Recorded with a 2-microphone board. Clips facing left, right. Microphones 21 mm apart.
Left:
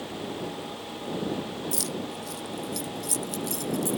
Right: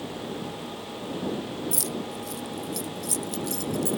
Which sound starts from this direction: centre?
Keys jangling, at 1.7 s.